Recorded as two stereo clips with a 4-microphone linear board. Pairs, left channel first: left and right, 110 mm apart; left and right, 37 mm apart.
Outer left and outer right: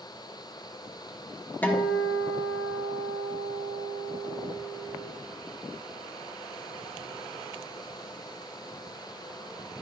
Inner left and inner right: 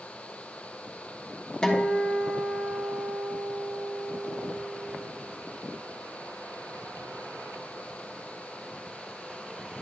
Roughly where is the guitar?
Centre.